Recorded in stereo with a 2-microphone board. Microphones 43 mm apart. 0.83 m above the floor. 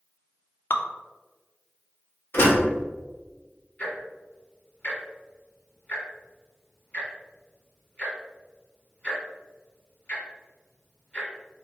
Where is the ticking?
35° left (ahead or behind), 1.9 m.